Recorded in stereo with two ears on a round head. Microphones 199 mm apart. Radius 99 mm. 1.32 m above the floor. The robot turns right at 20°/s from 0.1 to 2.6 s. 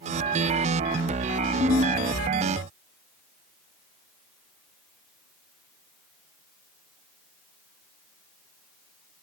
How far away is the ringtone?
About 1.3 m.